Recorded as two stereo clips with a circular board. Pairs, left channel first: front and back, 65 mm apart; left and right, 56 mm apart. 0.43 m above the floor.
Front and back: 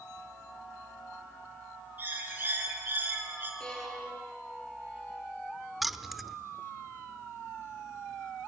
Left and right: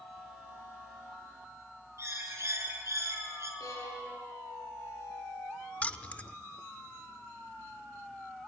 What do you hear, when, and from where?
2.0 s a bird: 120° right, 4.5 m
3.6 s a violin: 75° left, 6 m
5.8 s keys jangling: 95° left, 0.6 m